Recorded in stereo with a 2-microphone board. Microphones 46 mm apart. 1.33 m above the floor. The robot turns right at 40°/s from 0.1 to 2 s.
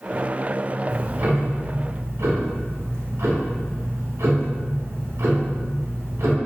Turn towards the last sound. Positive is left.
turn(degrees=-100)